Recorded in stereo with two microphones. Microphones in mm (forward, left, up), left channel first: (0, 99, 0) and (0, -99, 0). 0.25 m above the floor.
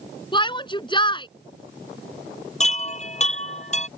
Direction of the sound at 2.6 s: 35° left (ahead or behind).